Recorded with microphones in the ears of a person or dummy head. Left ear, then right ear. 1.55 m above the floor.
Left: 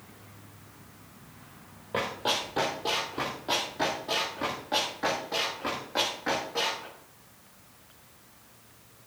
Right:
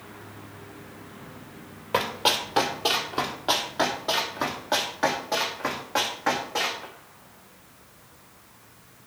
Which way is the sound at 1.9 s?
45° right (ahead or behind).